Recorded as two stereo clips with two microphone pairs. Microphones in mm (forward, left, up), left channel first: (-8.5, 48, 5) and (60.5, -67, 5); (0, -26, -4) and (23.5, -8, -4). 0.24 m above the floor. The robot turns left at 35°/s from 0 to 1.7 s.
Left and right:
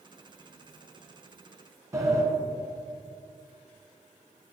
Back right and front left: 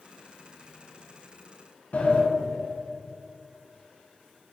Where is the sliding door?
125° right, 1.6 m.